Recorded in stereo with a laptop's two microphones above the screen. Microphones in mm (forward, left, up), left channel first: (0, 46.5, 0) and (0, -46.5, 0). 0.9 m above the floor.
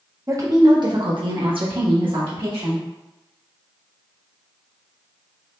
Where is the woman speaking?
35° right (ahead or behind), 0.8 m; by 2.9 s 60° right (ahead or behind), 1.6 m.